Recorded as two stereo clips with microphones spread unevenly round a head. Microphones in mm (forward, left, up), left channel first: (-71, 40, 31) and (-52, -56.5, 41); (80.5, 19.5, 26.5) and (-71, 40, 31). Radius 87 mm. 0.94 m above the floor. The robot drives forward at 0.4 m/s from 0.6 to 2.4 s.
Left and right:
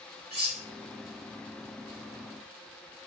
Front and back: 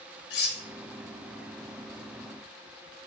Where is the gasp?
I don't hear a gasp.